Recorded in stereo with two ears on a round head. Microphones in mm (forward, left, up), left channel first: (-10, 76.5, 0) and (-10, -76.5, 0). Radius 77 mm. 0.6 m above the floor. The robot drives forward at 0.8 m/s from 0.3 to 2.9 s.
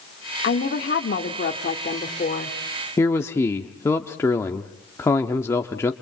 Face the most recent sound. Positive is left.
turn(degrees=15)  # may be behind; listen again after turning